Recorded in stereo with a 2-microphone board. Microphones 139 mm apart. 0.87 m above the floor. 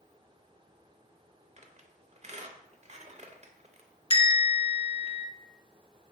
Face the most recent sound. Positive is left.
turn(degrees=40)  # may be behind; listen again after turning